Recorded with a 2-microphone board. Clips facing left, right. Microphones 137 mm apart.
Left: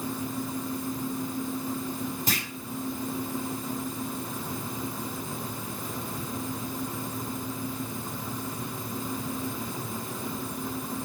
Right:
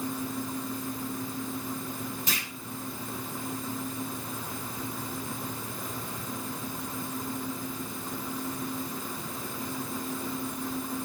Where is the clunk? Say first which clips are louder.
Left 4 dB; 40° left (ahead or behind), 3.5 m.